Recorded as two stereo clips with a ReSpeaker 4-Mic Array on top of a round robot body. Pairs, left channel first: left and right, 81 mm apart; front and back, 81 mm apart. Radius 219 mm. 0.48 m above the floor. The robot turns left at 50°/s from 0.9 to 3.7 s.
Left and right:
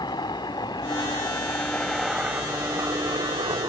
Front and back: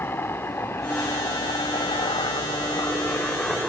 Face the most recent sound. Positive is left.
turn(degrees=-90)